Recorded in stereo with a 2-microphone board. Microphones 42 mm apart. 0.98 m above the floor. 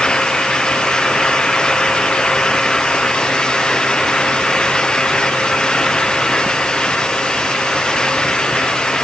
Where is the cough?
I don't hear a cough.